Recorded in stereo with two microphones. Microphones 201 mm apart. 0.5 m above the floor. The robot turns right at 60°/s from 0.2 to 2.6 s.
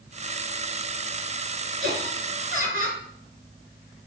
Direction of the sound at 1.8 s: 90° right.